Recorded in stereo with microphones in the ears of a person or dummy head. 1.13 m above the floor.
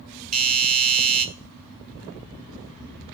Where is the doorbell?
45° right (ahead or behind), 2.5 m.